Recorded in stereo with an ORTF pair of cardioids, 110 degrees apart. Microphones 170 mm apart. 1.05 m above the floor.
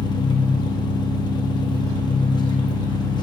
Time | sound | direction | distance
0.0 | an engine running | 25° left | 0.9 m